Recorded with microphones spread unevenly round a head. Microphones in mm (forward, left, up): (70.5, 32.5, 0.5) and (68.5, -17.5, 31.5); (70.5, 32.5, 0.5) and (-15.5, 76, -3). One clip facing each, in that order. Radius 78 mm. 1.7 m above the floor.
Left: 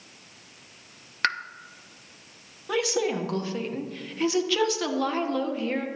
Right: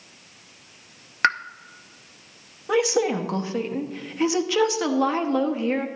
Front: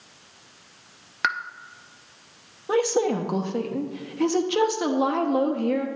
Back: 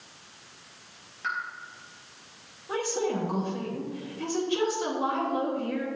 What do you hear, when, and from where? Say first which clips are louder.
1.2 s a pop: right 6 dB, front 6 dB; 40° right, 0.6 m
2.7 s a woman speaking: right 5 dB, front 7 dB; 50° right, 1.1 m